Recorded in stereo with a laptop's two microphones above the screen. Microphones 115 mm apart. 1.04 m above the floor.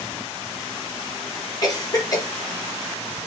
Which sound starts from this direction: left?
A cough, at 1.6 s.